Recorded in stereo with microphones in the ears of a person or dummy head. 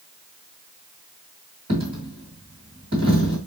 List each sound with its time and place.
1.7 s a dropped coin: 35° right (ahead or behind), 2 m